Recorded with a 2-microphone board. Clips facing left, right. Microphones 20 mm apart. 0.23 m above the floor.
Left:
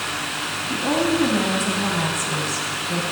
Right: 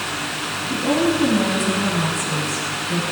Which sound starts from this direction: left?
A woman speaking, at 0.7 s.